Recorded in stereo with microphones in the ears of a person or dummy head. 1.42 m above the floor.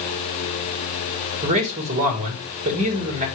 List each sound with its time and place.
1.4 s a man speaking: 35° right (ahead or behind), 1.8 m